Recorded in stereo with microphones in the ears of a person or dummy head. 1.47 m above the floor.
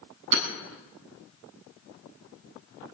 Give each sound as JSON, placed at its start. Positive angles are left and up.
{"t": 0.3, "sound": "hammering", "side_deg": -60, "distance_m": 7.5}